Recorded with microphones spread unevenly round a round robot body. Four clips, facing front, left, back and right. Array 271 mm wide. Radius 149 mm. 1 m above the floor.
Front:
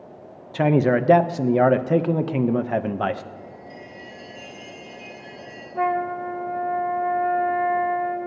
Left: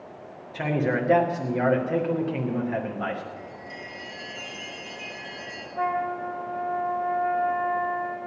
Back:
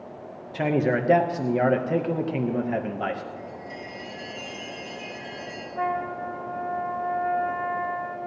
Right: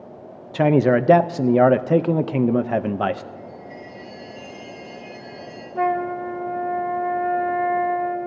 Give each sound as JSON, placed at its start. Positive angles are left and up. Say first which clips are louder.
{"t": 0.5, "sound": "a man speaking", "louder": "right 9 dB, front 5 dB", "azimuth_deg": -75, "distance_m": 0.5}
{"t": 3.4, "sound": "a chime", "louder": "right 2 dB, back 2 dB", "azimuth_deg": 150, "distance_m": 6.5}
{"t": 5.8, "sound": "a flute", "louder": "right 5 dB, front 5 dB", "azimuth_deg": -65, "distance_m": 0.6}